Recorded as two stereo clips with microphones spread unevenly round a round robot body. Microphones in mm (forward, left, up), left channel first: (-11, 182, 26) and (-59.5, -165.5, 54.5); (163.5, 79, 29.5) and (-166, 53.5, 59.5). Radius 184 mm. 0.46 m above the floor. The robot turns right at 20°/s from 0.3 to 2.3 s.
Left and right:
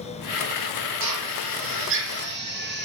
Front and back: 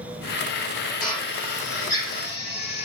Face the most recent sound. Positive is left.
turn(degrees=-40)